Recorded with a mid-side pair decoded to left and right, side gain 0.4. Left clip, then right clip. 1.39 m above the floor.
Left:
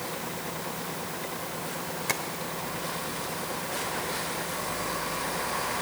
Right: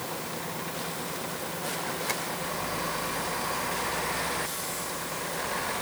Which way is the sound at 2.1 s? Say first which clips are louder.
Left 4 dB; 30° left.